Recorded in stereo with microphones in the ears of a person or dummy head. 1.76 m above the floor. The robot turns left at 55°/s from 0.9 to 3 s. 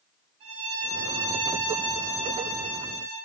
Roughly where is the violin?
Ahead right.